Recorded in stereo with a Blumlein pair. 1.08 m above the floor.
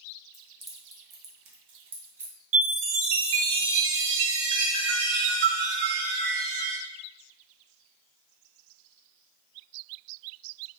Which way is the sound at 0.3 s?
20° left.